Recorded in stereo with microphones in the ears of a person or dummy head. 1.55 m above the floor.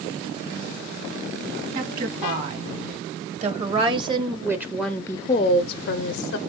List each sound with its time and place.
1.8 s a woman speaking: 50° right (ahead or behind), 1.9 m; by 6.4 s 75° left (ahead or behind), 0.7 m